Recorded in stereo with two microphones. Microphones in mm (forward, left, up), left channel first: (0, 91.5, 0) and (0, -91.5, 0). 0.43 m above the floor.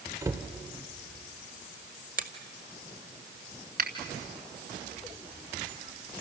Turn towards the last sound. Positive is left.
turn(degrees=-50)  # may be behind; listen again after turning